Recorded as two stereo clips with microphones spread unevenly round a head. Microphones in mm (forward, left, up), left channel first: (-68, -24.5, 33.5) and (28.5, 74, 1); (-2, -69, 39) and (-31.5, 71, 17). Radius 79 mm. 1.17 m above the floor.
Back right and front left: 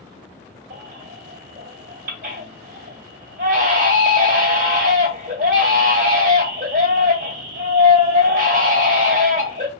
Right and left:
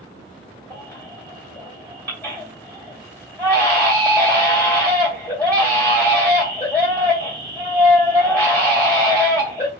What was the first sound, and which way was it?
A baby crying, straight ahead.